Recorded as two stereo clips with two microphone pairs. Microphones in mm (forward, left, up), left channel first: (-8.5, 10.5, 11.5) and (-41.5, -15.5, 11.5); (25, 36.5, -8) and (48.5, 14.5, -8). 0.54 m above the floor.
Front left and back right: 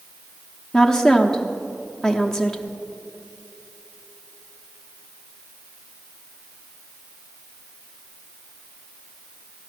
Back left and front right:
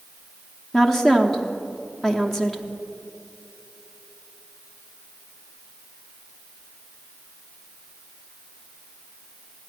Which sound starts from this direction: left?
A woman speaking, at 0.7 s.